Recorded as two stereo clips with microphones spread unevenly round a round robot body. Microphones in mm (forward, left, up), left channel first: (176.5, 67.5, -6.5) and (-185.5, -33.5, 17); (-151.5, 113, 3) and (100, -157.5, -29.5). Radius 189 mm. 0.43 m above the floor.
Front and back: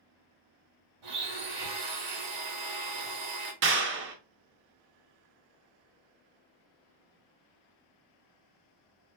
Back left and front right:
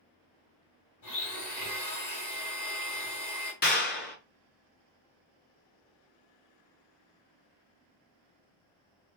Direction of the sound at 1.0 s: 175° left.